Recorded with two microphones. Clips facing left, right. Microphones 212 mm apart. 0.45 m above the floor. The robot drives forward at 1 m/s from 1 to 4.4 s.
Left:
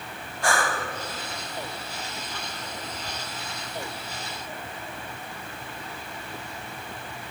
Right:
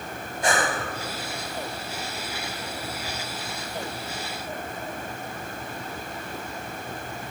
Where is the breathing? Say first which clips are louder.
Right 2 dB; 20° right (ahead or behind), 1.6 m.